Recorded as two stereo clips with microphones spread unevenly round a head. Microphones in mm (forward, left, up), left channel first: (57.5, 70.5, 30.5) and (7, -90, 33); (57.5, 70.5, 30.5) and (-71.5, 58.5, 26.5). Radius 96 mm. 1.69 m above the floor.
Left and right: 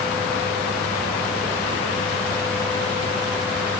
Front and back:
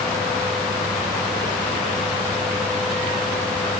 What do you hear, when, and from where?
Only background noise.